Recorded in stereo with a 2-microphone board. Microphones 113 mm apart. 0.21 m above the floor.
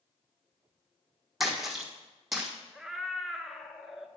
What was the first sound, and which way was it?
A splash, centre (ahead or behind).